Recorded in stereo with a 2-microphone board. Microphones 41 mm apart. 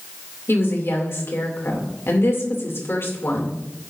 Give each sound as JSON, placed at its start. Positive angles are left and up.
{"t": 0.5, "sound": "a woman speaking", "side_deg": 65, "distance_m": 2.5}